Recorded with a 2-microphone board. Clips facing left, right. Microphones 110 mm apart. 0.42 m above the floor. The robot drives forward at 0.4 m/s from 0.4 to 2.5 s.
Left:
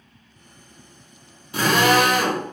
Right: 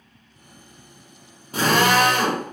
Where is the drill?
40° right (ahead or behind), 1.4 m; by 2.4 s 35° right (ahead or behind), 1.6 m.